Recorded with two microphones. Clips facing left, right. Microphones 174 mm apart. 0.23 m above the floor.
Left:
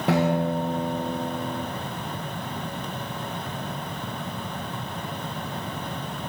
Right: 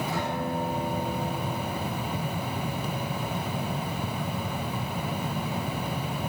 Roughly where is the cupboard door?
I don't hear a cupboard door.